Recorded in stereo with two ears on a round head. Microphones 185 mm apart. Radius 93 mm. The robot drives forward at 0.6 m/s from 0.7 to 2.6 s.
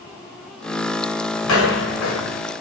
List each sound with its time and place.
1.4 s footsteps: 75° left (ahead or behind), 5 m